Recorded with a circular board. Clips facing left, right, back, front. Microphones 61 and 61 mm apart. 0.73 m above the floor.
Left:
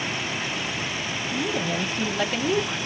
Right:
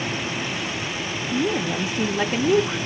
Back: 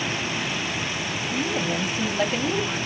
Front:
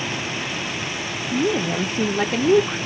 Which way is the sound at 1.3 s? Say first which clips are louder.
Right 4 dB, front 6 dB; 20° right.